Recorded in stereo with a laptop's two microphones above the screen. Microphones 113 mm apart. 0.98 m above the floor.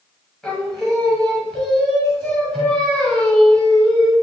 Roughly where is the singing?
Centre.